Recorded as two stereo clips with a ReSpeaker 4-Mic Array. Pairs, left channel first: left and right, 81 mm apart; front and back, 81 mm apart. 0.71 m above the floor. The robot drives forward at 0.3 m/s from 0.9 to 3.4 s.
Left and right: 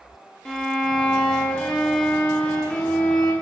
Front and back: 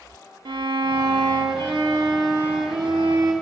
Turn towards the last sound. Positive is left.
turn(degrees=175)